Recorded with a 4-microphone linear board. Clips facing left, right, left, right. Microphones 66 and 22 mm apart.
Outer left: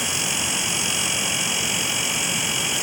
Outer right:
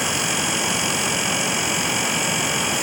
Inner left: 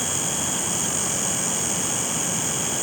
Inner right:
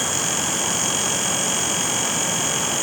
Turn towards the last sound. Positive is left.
No sound to turn to.